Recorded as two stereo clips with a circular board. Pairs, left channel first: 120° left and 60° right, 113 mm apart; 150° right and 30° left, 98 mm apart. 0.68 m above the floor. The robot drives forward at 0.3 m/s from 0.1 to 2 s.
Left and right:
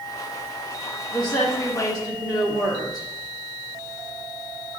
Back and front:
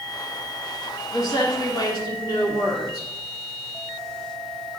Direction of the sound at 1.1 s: 165° left.